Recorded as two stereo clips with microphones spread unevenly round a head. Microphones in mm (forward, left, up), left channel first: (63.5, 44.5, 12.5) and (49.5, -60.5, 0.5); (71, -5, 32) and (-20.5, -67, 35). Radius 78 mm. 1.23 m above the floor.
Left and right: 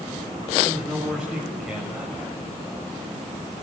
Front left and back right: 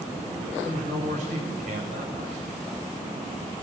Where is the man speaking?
175° left, 7.5 m.